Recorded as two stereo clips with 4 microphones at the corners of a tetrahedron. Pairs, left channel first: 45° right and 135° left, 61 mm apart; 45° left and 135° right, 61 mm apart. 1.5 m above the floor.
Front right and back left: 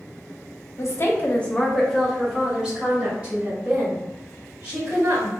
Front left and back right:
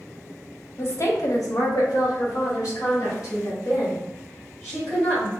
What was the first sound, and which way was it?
A woman speaking, 5° right.